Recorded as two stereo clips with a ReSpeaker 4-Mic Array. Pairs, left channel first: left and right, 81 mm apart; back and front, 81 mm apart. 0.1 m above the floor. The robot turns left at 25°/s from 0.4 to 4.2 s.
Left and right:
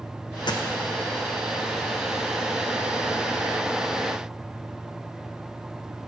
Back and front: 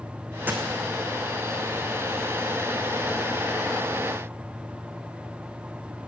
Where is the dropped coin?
65° left, 1.2 m; by 0.7 s 60° left, 1.2 m.